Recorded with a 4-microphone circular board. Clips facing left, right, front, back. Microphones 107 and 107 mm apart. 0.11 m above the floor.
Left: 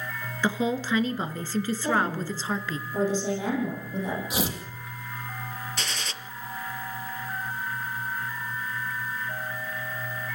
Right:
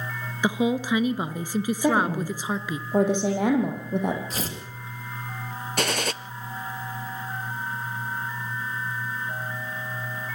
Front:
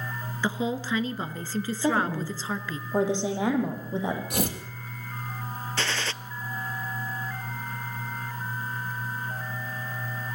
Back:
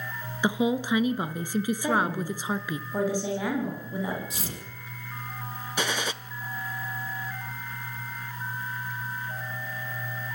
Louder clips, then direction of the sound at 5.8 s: Right 9 dB, back 2 dB; 105° right.